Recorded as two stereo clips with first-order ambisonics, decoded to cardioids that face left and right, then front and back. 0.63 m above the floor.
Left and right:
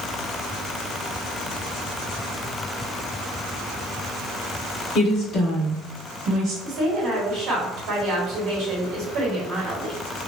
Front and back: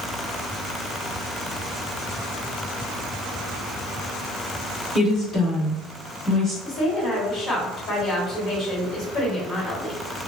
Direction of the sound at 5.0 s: 60° left.